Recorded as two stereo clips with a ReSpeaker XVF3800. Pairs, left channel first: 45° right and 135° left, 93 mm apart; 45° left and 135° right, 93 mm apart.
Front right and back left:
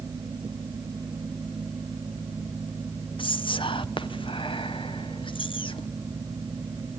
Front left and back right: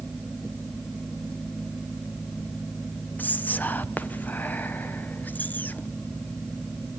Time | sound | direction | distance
3.2 | whispering | 25° right | 0.9 m